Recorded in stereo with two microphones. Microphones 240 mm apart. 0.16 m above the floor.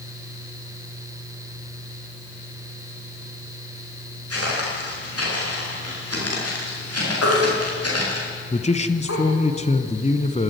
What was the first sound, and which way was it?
Footsteps, 75° left (ahead or behind).